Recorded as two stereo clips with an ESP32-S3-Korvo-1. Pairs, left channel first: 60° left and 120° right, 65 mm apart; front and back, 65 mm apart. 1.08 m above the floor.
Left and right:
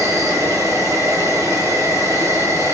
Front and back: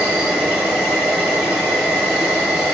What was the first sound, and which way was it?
An insect, 110° right.